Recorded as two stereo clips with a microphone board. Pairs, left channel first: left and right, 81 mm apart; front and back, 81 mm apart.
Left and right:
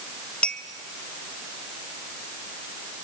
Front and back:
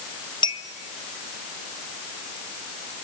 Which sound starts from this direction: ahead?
A clink, at 0.4 s.